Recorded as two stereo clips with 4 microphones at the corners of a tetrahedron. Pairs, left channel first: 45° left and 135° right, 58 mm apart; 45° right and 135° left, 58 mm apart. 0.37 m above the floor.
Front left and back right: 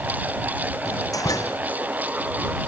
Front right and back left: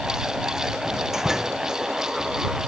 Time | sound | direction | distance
0.8 | a door slam | 55° left | ?